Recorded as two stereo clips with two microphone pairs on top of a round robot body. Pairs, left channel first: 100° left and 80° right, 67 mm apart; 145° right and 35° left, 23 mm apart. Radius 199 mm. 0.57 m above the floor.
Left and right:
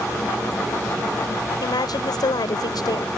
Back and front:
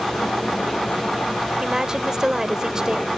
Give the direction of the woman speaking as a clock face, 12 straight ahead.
9 o'clock.